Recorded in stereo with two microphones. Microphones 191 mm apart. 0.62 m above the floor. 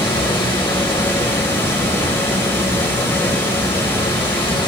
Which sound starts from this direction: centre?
Running water, at 0.0 s.